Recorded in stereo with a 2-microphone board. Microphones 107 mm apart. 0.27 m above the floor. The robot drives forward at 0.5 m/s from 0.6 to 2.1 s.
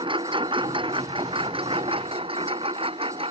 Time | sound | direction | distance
0.0 | a lawn mower | 55° right (ahead or behind) | ?